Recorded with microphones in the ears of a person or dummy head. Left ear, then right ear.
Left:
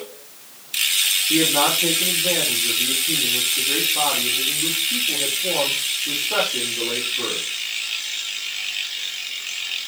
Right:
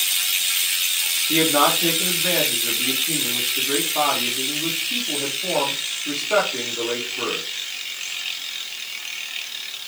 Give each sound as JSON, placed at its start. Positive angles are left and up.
{"t": 1.3, "sound": "a man speaking", "side_deg": -45, "distance_m": 4.0}